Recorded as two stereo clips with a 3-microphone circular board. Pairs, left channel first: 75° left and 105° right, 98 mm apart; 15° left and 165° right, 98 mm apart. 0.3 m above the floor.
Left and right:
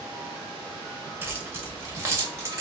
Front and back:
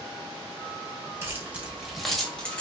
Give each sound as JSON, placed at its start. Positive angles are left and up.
{"t": 1.2, "sound": "keys jangling", "azimuth_deg": -140, "distance_m": 0.8}